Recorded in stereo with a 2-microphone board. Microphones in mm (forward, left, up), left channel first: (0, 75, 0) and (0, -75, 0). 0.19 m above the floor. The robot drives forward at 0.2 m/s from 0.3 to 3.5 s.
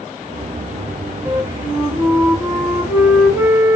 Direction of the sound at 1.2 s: 25° right (ahead or behind).